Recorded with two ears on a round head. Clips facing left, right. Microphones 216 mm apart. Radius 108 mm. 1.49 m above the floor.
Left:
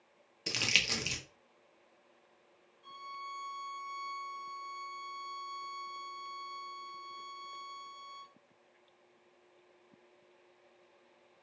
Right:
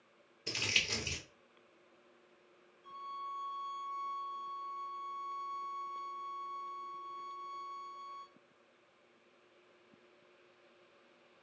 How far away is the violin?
About 0.8 m.